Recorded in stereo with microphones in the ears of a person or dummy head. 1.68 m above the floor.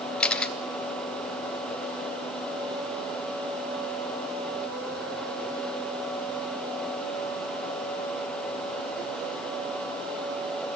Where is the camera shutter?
10° left (ahead or behind), 1.7 m.